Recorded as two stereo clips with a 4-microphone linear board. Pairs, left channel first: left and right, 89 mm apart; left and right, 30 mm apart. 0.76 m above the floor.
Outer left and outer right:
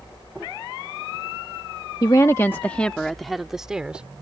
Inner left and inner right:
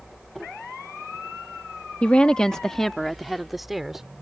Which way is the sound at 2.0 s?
45° left (ahead or behind).